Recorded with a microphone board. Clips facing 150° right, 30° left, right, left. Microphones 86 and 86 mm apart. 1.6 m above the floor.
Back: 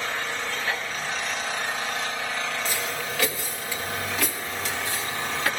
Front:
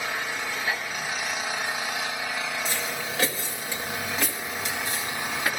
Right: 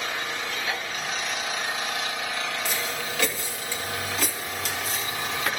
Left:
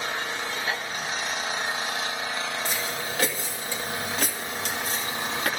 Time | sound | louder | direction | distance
0.0 | an engine running | back 1 dB, even | 100° left | 0.9 m
2.6 | footsteps | back 1 dB, even | 55° left | 2 m